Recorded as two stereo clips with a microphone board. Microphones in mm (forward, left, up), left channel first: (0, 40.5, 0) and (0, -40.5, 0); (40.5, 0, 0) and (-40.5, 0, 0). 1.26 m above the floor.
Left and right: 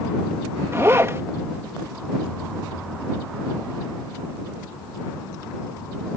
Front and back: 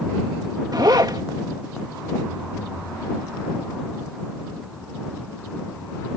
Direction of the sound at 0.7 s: 145° right.